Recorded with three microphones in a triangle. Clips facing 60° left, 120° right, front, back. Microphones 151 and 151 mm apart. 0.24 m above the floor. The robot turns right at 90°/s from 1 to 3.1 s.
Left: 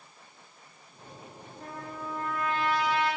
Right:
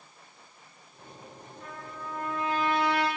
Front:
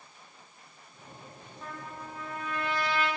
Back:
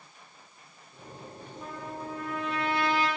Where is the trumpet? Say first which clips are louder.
Left 3 dB, back 4 dB; 105° left, 9 m; by 3.1 s 125° right, 9 m.